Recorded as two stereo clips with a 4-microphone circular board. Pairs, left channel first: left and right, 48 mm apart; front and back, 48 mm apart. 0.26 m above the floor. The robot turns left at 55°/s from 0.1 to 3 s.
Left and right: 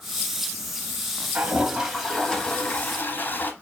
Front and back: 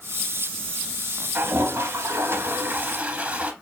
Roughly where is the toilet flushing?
Behind right.